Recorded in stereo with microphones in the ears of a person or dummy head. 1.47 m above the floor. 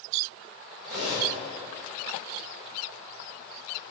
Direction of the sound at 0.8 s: 75° right (ahead or behind).